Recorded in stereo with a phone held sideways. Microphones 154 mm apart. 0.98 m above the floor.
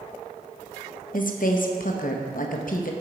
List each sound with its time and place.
1.1 s a woman speaking: 60° left (ahead or behind), 0.7 m